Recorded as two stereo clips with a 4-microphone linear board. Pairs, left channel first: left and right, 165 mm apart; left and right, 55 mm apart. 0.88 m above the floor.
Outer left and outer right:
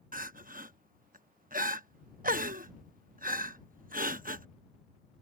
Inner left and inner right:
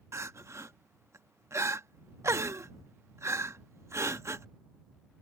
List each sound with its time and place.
0.1 s crying: 60° right (ahead or behind)